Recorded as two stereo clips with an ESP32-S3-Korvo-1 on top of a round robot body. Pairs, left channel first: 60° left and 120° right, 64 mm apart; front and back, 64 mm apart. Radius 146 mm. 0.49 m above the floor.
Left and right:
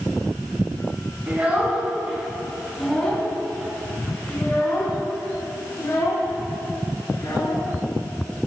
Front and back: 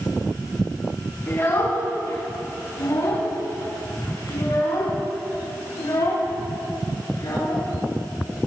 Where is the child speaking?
50° right, 4 m; by 7.6 s 25° left, 6.5 m.